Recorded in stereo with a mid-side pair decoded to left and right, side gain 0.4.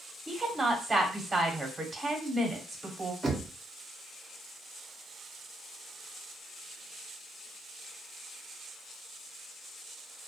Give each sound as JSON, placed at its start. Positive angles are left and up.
{"t": 0.3, "sound": "a woman speaking", "azimuth_deg": -30, "distance_m": 1.2}
{"t": 3.2, "sound": "knocking", "azimuth_deg": -35, "distance_m": 0.9}